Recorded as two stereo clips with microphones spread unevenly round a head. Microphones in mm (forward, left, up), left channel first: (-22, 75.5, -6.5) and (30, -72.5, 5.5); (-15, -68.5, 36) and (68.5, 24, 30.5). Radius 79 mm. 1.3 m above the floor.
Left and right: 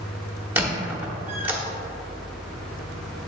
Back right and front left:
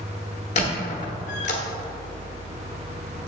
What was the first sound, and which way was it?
A squeak, 140° right.